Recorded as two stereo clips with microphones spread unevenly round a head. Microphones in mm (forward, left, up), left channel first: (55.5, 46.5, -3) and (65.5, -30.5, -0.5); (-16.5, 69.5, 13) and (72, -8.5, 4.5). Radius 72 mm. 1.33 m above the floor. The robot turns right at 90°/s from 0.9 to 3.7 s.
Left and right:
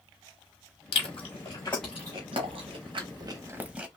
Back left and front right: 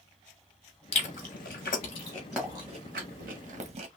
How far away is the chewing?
About 1.1 m.